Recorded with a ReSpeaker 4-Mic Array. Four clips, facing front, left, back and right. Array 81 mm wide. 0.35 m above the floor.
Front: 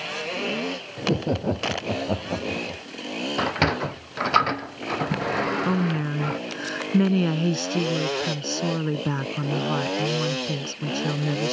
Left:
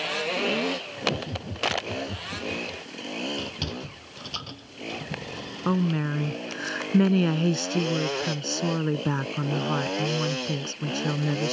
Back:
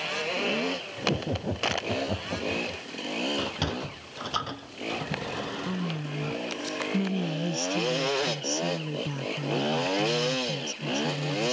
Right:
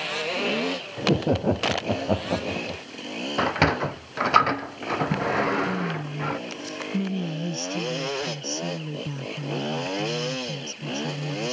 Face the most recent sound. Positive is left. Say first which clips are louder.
# left 3 dB, front 8 dB
turn(degrees=50)